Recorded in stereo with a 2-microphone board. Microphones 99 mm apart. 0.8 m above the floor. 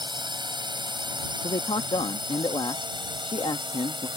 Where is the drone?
50° right (ahead or behind).